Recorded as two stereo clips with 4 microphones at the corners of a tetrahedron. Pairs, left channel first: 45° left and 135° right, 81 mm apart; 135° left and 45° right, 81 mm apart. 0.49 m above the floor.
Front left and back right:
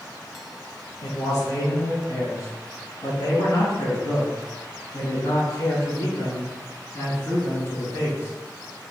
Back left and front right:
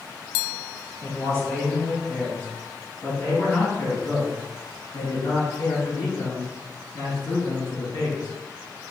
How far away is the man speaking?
About 3 m.